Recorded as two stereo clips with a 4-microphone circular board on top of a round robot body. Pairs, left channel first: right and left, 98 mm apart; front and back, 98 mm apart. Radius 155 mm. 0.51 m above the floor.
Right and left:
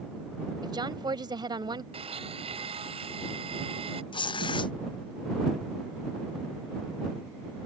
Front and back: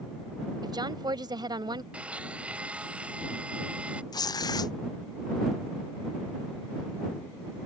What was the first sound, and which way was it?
A woman speaking, 135° left.